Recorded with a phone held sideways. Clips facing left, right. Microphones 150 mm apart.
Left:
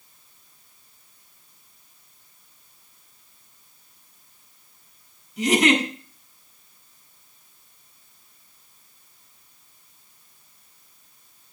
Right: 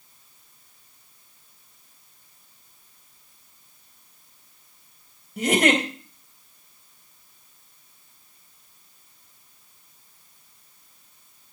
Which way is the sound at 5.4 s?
55° right (ahead or behind).